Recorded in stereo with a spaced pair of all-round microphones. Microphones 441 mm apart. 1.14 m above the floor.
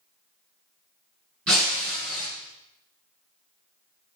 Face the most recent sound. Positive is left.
turn(degrees=-30)  # may be behind; listen again after turning